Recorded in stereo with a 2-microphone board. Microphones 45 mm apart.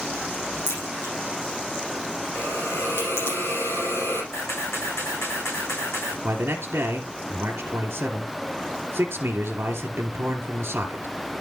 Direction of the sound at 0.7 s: 70° left (ahead or behind).